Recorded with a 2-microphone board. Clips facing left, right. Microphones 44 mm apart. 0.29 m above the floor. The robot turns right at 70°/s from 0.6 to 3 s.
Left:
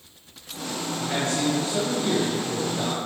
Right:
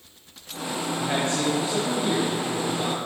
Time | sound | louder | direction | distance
1.0 | a man speaking | even | 65° right | 1.4 m